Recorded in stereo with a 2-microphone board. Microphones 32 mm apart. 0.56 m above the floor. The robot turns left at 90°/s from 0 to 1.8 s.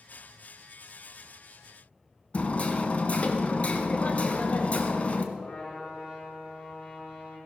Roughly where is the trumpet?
Left.